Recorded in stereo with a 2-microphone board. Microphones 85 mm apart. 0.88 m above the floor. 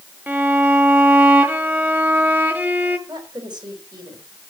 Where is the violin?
20° right (ahead or behind), 1.2 m.